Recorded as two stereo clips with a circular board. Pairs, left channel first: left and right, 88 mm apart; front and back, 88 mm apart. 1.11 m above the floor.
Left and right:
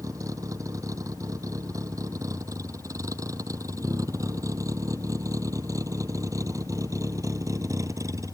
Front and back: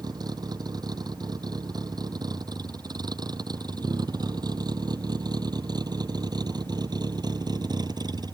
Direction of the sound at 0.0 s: 140° right.